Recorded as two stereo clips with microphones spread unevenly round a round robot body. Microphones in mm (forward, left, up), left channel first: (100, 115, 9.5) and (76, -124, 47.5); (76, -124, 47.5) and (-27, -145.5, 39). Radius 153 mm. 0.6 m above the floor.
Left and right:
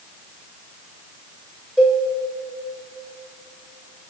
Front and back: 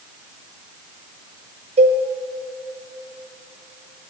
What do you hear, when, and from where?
1.8 s a cowbell: 175° left, 1.1 m